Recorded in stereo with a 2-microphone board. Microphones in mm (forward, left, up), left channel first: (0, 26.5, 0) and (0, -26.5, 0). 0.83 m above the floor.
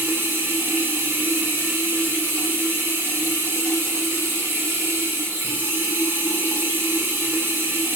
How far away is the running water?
About 0.8 m.